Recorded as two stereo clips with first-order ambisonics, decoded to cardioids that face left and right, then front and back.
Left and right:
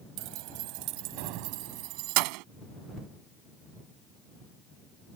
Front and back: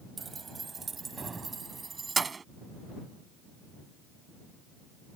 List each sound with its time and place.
0.2 s keys jangling: 105° right